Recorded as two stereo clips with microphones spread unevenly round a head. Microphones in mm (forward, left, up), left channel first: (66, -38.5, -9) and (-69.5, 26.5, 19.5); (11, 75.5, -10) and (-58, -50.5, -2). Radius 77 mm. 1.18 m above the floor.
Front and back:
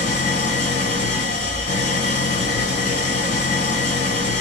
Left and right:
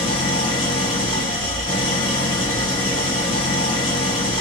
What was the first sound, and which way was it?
An engine running, 5° left.